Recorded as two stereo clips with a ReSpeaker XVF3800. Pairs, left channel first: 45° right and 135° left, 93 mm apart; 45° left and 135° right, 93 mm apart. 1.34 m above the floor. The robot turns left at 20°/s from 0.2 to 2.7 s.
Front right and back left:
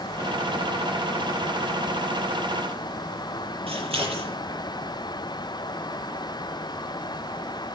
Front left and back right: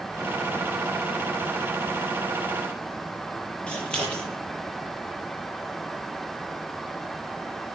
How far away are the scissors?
About 8 m.